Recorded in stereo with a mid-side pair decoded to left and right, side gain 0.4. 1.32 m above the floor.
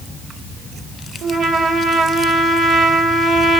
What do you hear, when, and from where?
1.2 s a trumpet: 65° right, 1.6 m